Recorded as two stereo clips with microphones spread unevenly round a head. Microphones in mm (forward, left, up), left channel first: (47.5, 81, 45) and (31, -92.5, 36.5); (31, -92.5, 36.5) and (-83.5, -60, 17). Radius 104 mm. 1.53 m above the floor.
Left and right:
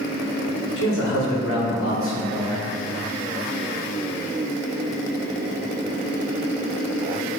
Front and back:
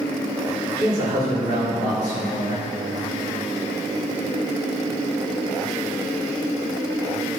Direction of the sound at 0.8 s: 90° left.